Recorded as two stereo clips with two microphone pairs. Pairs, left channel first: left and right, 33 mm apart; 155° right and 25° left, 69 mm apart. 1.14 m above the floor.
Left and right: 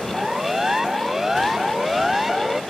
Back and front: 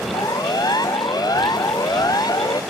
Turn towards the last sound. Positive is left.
turn(degrees=-170)